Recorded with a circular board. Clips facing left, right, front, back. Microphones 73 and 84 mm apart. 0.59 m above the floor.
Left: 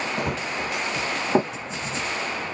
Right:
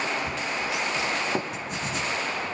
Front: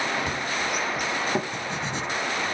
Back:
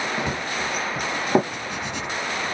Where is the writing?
60° right, 3.5 m.